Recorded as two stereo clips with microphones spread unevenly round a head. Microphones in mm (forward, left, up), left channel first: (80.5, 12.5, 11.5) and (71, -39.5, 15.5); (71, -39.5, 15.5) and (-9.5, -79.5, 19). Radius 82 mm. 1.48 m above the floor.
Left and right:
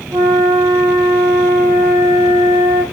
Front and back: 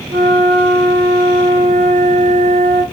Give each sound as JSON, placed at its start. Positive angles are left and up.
{"t": 0.1, "sound": "a flute", "azimuth_deg": -165, "distance_m": 1.5}